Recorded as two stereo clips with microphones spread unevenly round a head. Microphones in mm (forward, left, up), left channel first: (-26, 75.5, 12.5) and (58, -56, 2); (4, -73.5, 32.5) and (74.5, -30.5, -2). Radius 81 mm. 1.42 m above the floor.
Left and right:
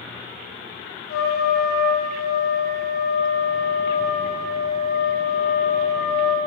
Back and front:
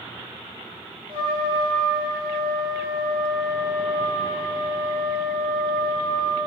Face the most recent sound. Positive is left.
turn(degrees=95)